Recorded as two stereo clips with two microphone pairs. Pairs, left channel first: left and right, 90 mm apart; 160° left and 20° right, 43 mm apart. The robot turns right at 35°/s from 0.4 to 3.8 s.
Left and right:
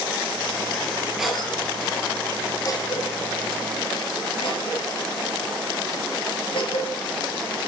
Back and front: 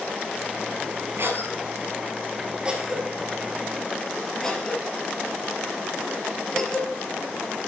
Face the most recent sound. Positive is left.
turn(degrees=85)